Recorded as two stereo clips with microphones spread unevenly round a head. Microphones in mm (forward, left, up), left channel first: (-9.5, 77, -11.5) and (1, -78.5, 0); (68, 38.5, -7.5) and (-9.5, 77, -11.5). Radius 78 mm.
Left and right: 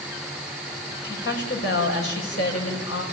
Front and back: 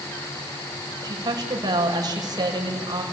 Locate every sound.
1.0 s a woman speaking: 115° left, 6 m